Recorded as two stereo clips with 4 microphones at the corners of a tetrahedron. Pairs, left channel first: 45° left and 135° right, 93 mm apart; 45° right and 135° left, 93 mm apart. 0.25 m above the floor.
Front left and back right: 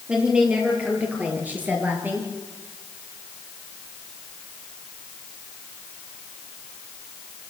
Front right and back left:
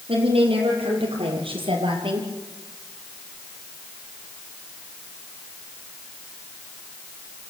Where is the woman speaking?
150° left, 7.5 m; by 2.3 s 160° left, 4.5 m.